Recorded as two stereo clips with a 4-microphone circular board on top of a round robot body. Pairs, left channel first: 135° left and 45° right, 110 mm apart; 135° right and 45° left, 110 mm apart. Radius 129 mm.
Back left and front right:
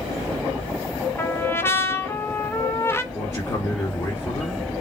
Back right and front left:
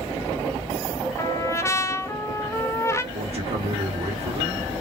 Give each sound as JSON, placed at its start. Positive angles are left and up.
{"t": 1.2, "sound": "a trumpet", "azimuth_deg": -175, "distance_m": 1.0}
{"t": 3.1, "sound": "a man speaking", "azimuth_deg": 75, "distance_m": 2.5}